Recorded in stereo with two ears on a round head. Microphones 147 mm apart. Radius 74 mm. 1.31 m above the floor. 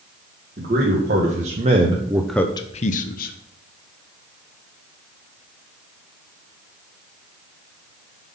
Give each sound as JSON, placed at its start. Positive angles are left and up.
{"t": 0.6, "sound": "a man speaking", "side_deg": -50, "distance_m": 1.9}